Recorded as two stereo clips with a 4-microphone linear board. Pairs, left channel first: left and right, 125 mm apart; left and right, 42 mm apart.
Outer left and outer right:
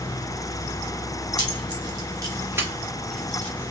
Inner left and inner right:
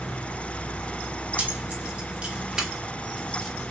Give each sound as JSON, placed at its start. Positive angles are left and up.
{"t": 1.4, "sound": "keys jangling", "side_deg": -40, "distance_m": 1.1}